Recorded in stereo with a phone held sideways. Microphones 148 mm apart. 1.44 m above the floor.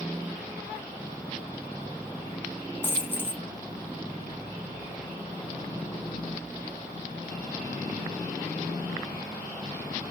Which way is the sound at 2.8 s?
15° left (ahead or behind).